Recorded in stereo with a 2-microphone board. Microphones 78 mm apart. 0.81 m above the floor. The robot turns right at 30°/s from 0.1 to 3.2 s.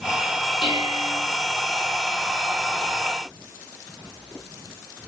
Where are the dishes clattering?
75° left (ahead or behind), 6.5 m; by 1.2 s 55° left (ahead or behind), 6.5 m.